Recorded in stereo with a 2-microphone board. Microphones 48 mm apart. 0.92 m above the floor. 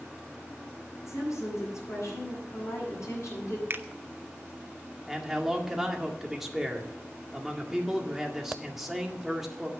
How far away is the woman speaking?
About 6.5 m.